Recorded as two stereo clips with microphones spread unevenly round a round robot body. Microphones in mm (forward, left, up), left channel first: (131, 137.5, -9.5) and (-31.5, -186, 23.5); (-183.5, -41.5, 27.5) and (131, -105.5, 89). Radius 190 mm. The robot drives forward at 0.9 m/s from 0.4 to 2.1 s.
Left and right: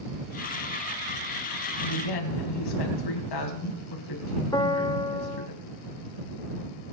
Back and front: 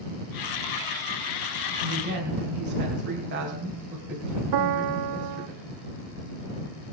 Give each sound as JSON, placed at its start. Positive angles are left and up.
{"t": 1.8, "sound": "a woman speaking", "azimuth_deg": 50, "distance_m": 4.0}
{"t": 4.5, "sound": "a piano", "azimuth_deg": -10, "distance_m": 0.7}